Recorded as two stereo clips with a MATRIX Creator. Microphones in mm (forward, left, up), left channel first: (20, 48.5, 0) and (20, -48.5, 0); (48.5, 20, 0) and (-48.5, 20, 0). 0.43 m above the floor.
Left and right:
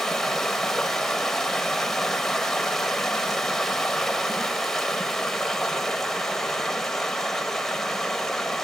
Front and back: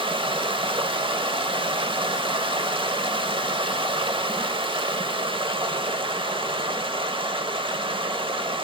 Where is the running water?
175° left, 0.8 m.